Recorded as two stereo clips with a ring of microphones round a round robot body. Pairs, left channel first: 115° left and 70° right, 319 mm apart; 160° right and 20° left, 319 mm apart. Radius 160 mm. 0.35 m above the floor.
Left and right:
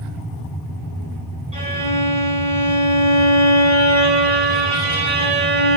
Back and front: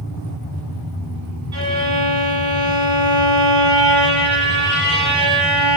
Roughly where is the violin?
Ahead.